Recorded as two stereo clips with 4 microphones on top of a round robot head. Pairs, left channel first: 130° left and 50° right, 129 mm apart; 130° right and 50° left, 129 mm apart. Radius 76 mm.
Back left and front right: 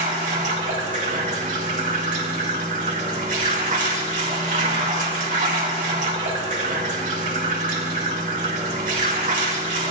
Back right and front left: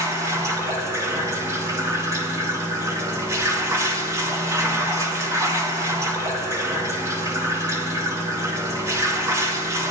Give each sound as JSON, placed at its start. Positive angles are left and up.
{"t": 0.0, "sound": "running water", "azimuth_deg": -20, "distance_m": 3.5}